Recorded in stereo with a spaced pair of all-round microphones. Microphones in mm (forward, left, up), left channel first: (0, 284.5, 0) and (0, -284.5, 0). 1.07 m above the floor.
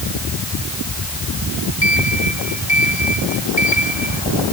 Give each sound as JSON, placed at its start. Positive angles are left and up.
{"t": 1.8, "sound": "a sliding door", "side_deg": 50}